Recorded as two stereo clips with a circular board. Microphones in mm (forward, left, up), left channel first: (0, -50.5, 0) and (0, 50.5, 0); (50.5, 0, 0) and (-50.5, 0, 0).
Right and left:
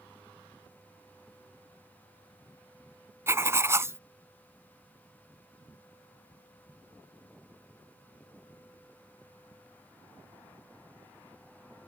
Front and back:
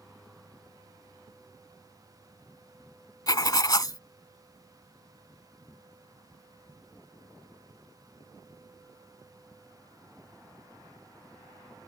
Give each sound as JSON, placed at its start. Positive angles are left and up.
{"t": 3.3, "sound": "writing", "azimuth_deg": 35}